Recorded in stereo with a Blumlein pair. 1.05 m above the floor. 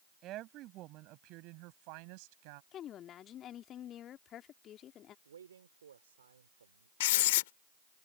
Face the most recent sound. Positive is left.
turn(degrees=55)